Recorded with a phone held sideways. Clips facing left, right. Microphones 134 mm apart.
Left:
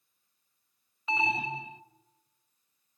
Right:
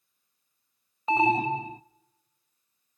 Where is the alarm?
45° right (ahead or behind), 0.5 m.